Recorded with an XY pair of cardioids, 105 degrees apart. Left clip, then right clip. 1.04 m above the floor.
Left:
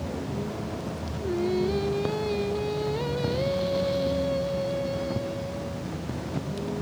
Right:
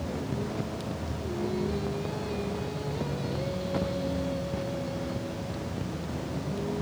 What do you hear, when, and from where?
0.0 s a vehicle: 10° left; by 6.8 s straight ahead
1.2 s singing: 50° left